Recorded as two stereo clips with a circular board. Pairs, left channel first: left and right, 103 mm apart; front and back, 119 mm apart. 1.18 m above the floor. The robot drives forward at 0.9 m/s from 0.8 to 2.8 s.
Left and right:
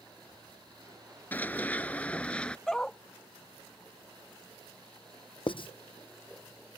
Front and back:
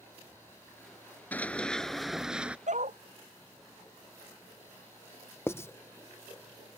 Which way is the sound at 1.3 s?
50° left.